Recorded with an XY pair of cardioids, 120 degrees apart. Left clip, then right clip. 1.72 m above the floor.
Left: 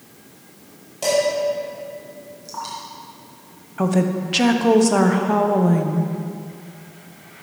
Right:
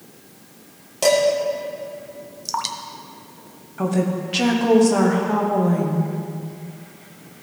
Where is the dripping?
65° right, 0.8 m.